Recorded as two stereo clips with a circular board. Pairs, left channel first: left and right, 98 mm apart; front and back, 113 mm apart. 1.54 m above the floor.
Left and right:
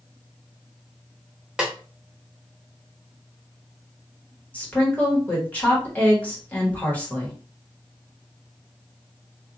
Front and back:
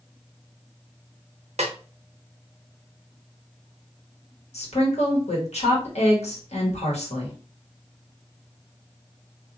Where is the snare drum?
170° right, 0.6 m.